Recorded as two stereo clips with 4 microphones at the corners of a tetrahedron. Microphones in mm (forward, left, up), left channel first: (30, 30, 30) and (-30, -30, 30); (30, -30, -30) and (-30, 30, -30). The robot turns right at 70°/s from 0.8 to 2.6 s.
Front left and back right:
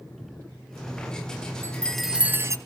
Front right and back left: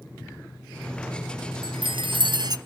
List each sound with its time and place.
1.6 s a chime: 110° left, 0.8 m; by 2.6 s 175° left, 0.8 m